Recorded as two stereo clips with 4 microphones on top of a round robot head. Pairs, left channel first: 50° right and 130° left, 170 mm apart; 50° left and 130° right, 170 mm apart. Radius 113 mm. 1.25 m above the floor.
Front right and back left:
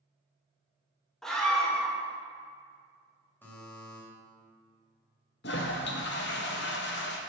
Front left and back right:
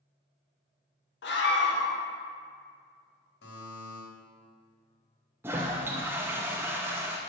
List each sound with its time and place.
1.2 s a scream: 40° left, 1.8 m
3.4 s a buzzer: 30° left, 3 m
5.4 s a toilet flushing: 55° right, 0.6 m